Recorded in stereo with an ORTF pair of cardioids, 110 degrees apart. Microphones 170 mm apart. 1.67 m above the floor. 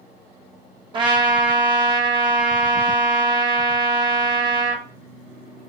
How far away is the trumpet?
About 0.7 m.